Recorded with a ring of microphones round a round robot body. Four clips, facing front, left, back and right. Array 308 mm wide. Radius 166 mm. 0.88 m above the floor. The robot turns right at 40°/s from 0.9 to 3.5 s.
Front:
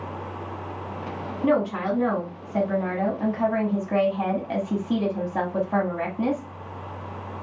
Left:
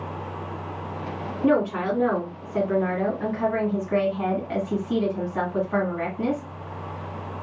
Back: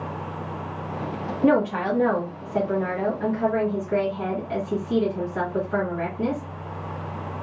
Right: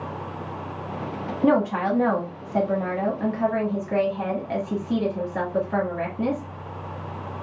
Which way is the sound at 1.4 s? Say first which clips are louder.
Right 1 dB, back 2 dB; 115° right.